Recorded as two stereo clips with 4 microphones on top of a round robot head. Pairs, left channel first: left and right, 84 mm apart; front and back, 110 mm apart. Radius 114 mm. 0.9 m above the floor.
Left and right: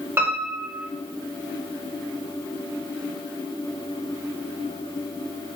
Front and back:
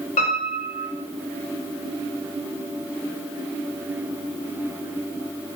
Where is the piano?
25° right, 1.1 m.